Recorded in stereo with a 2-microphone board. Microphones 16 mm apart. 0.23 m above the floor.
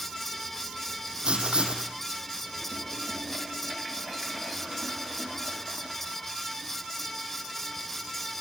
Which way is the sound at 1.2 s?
75° right (ahead or behind).